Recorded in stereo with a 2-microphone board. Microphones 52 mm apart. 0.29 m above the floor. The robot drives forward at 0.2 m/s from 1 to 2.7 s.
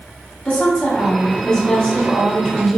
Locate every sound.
0.5 s a woman speaking: 25° left (ahead or behind), 1.0 m